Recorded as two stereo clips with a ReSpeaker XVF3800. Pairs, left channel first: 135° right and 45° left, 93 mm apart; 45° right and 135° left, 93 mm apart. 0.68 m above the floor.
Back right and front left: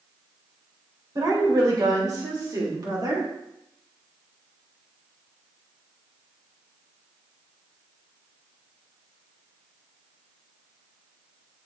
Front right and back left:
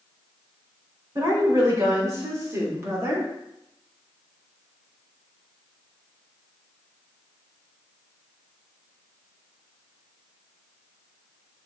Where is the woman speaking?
85° left, 3 m; by 3.3 s 75° left, 1.6 m.